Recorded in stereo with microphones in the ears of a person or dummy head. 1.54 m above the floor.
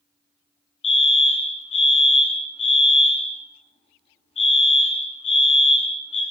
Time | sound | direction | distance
0.8 | a fire alarm | 30° left (ahead or behind) | 2.5 m